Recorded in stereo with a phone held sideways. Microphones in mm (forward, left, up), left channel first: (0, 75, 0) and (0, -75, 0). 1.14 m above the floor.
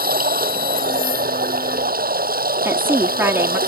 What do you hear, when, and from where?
0.0 s running water: 80° right
2.6 s a woman speaking: 15° right (ahead or behind)